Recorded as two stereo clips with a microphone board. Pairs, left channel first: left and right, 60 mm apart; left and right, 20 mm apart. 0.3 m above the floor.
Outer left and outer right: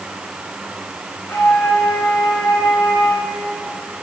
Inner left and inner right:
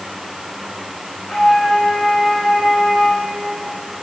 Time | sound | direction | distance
1.3 | a flute | 50° left (ahead or behind) | 7.5 m